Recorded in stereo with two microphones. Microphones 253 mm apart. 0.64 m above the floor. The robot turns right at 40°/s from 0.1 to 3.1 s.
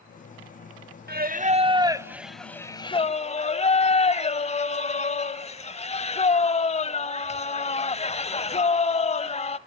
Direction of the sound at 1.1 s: 50° right.